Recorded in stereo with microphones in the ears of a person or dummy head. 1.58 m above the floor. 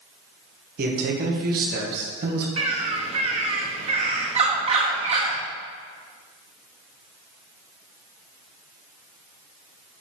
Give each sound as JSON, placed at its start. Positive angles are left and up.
{"t": 0.8, "sound": "a man speaking", "side_deg": -55, "distance_m": 1.4}
{"t": 2.6, "sound": "a bird", "side_deg": -25, "distance_m": 0.8}